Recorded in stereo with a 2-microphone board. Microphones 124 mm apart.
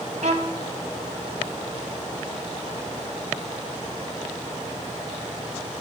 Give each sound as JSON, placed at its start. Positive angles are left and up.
{"t": 0.2, "sound": "a violin", "side_deg": -60, "distance_m": 0.9}